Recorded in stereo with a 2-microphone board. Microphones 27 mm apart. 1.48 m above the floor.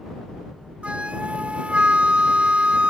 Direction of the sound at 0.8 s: 55° right (ahead or behind).